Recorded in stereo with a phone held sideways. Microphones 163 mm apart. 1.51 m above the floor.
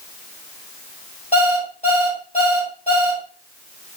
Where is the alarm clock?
40° left (ahead or behind), 3 m.